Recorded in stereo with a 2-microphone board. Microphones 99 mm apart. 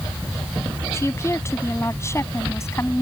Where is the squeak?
No squeak in this recording.